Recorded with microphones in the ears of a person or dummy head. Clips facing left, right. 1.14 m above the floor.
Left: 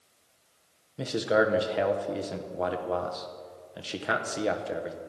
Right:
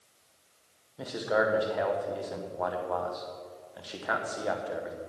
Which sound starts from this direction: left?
A man speaking, at 1.0 s.